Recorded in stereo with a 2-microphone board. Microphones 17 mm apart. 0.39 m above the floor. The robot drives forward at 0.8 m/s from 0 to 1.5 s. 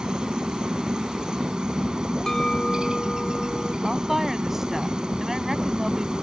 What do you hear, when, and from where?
0.0 s a helicopter: 50° right (ahead or behind)
2.3 s a clink: 30° left (ahead or behind)
3.8 s a woman speaking: 25° right (ahead or behind)